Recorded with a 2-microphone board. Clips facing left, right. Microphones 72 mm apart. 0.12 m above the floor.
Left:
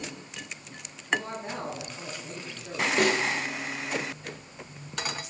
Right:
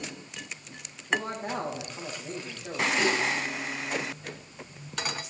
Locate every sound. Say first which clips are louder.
1.1 s a man speaking: right 1 dB; 55° right (ahead or behind), 6 m
3.0 s a snare drum: left 3 dB; 60° left (ahead or behind), 2 m